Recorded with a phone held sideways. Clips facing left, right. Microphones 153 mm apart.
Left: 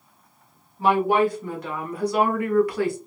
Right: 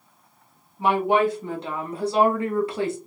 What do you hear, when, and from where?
0.8 s a woman speaking: 20° right (ahead or behind), 1.5 m